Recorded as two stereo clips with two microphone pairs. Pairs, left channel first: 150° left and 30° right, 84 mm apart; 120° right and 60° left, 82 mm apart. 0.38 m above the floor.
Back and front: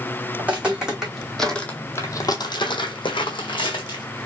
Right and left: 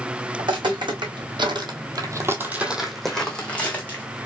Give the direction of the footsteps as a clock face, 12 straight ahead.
11 o'clock.